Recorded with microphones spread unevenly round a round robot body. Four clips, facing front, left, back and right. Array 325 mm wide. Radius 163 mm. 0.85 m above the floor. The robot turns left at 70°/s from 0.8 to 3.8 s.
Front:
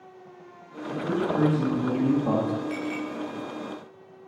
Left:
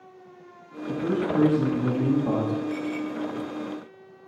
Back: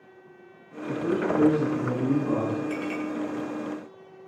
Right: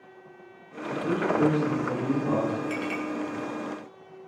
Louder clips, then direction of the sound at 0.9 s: Left 1 dB, back 1 dB; 115° left.